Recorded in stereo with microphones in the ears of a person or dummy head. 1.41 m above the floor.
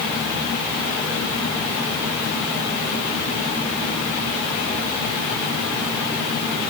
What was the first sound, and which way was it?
Only background noise.